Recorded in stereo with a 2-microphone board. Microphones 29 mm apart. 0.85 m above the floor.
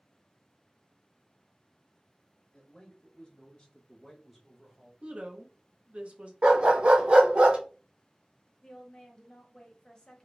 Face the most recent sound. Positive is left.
turn(degrees=25)  # may be behind; listen again after turning